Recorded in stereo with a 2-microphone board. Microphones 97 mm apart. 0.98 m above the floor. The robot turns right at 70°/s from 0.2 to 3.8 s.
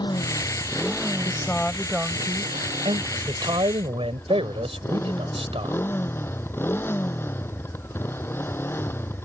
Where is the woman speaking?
145° left; by 3.0 s 95° right.